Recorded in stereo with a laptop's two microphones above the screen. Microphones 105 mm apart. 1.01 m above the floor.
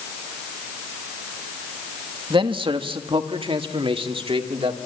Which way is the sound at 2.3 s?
45° right (ahead or behind).